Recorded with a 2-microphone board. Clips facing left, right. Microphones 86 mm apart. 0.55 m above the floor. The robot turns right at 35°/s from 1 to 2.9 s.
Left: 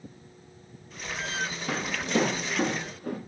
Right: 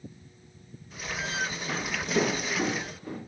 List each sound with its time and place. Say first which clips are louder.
1.7 s footsteps: left 3 dB; 85° left, 6.5 m; by 3.2 s 60° left (ahead or behind), 7 m